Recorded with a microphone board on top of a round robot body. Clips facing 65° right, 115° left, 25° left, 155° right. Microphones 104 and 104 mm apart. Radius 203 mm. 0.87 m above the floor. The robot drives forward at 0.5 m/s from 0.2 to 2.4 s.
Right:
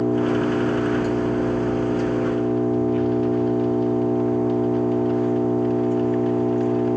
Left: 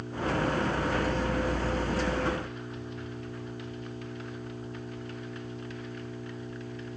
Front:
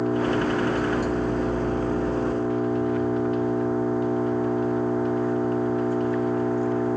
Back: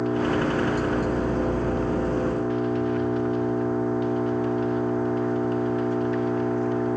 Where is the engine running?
65° right.